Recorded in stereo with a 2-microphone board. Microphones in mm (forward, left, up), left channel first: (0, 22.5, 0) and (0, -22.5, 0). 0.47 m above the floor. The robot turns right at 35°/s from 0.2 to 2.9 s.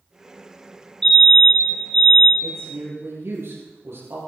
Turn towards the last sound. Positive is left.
turn(degrees=-70)  # may be behind; listen again after turning